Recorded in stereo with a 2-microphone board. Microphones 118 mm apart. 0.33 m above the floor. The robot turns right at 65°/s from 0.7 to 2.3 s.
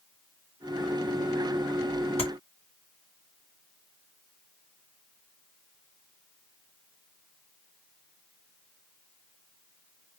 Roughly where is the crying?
No crying in this recording.